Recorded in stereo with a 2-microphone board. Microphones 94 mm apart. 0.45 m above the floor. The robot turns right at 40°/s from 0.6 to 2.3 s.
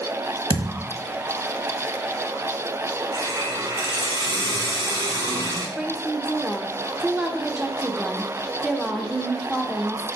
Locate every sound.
0.5 s a thud: 75° right (ahead or behind), 1.1 m; by 0.9 s 65° right (ahead or behind), 1.1 m
3.1 s a hiss: 40° right (ahead or behind), 2.5 m
5.8 s a woman speaking: 5° right (ahead or behind), 0.9 m